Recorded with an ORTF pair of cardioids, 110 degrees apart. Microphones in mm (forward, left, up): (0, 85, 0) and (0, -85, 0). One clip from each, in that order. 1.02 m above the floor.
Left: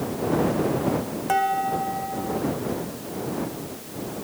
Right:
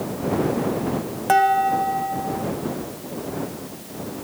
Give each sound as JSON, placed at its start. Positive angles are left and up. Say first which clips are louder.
{"t": 1.3, "sound": "dishes clattering", "louder": "right 6 dB", "azimuth_deg": -30}